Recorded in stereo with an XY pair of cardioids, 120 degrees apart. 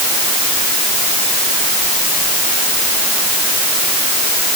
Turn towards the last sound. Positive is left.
No sound to turn to.